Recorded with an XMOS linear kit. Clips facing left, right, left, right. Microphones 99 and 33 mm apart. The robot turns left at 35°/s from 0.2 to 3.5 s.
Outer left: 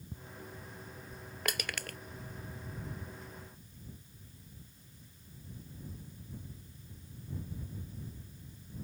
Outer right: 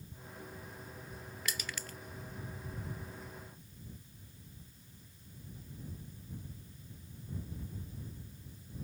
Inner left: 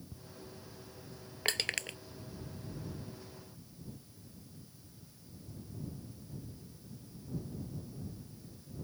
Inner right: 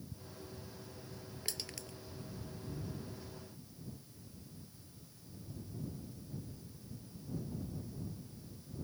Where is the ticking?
70° left (ahead or behind).